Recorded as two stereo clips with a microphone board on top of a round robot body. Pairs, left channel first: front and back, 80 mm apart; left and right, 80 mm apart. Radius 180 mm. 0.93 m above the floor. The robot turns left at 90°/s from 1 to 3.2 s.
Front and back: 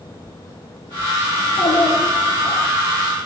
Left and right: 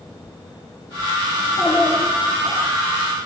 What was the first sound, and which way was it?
A child speaking, 60° left.